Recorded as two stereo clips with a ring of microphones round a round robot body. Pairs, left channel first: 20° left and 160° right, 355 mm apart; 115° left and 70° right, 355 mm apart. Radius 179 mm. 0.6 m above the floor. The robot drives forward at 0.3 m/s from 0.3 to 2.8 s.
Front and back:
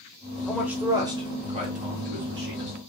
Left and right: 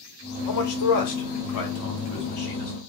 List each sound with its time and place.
0.5 s a man speaking: 110° left, 0.9 m; by 2.8 s 145° left, 1.3 m